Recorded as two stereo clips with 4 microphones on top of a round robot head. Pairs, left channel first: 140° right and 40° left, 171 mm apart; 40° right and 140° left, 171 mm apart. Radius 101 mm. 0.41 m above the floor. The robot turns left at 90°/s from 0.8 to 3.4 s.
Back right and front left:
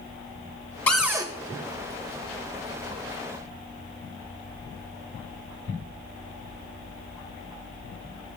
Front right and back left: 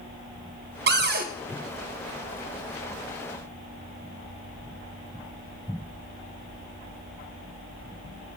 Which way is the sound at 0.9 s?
140° left.